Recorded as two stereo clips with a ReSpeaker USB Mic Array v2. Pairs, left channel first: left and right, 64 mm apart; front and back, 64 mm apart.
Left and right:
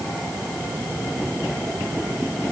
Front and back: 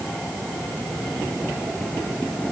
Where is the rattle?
I don't hear a rattle.